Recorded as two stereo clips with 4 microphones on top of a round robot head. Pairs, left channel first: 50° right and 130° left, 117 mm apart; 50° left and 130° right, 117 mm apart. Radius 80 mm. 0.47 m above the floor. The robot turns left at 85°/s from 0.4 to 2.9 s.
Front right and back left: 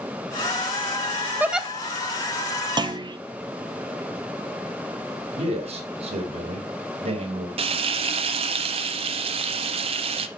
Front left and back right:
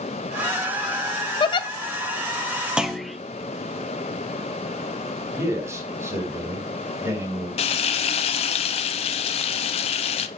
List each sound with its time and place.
1.4 s a giggle: 65° left, 0.7 m; by 1.7 s 40° left, 0.7 m
2.8 s a clunk: 150° left, 0.8 m; by 3.2 s 140° left, 0.8 m
5.3 s a man speaking: 160° left, 2 m
7.6 s frying: 90° left, 0.7 m